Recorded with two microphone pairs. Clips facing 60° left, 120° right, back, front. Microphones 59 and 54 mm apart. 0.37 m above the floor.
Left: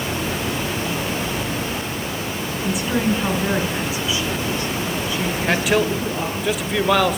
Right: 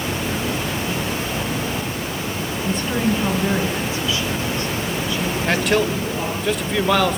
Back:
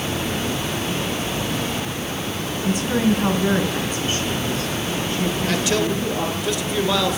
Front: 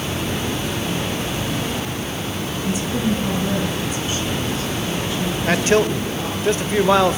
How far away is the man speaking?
About 1.2 m.